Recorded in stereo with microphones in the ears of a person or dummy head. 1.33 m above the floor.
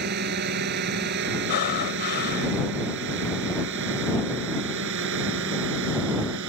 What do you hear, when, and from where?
0.0 s a drone: 55° right (ahead or behind); by 6.5 s 70° right (ahead or behind)
1.5 s breathing: 50° left (ahead or behind)